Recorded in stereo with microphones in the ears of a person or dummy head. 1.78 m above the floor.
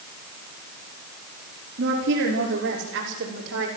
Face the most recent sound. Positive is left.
turn(degrees=-70)  # may be behind; listen again after turning